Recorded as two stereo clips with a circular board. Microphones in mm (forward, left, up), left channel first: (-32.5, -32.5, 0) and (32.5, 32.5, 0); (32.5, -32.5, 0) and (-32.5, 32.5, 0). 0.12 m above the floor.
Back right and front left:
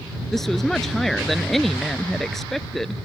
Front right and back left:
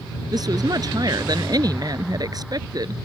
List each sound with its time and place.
0.3 s a woman speaking: 140° left